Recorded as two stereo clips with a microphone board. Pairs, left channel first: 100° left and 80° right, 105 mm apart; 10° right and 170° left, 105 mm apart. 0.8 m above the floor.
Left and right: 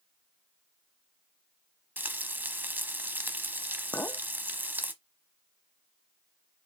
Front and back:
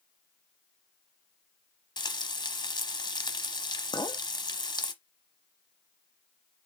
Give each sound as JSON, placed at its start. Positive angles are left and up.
{"t": 2.0, "sound": "frying", "azimuth_deg": -10, "distance_m": 0.8}
{"t": 3.9, "sound": "a clink", "azimuth_deg": 30, "distance_m": 0.7}